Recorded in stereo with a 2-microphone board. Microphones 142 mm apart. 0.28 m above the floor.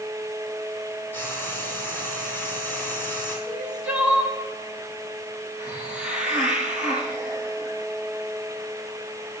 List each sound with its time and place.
1.1 s frying: 15° left (ahead or behind), 2.5 m
3.5 s crying: 5° right (ahead or behind), 3 m
5.6 s a hiss: 5° right (ahead or behind), 3.5 m